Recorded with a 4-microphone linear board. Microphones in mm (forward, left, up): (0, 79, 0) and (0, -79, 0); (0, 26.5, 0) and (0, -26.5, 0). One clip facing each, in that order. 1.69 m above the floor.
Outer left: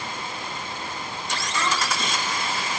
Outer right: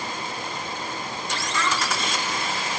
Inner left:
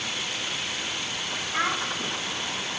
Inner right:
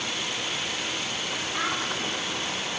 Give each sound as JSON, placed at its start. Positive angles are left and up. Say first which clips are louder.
{"t": 1.5, "sound": "a child speaking", "louder": "even, inner left 4 dB", "side_deg": 30, "distance_m": 4.5}